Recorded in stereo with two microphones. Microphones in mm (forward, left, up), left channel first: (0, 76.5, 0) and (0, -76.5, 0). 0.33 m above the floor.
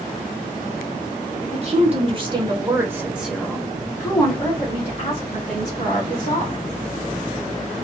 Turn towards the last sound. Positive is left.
turn(degrees=50)  # may be behind; listen again after turning